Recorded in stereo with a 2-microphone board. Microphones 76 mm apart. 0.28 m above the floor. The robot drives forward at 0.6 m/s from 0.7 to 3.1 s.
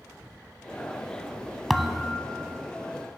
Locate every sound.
1.7 s a thud: centre (ahead or behind), 0.6 m